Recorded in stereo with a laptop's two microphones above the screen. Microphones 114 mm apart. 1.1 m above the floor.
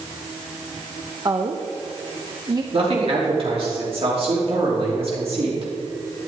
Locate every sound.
1.2 s a woman speaking: 35° right (ahead or behind), 0.9 m
2.7 s a man speaking: 55° right (ahead or behind), 3 m